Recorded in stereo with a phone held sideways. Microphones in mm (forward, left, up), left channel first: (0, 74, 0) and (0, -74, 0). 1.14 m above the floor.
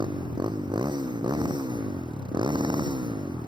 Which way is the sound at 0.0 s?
30° right (ahead or behind).